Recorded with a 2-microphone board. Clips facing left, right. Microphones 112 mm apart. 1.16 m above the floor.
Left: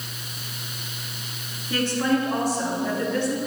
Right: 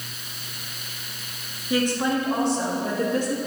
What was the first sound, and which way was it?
A woman speaking, 15° right (ahead or behind).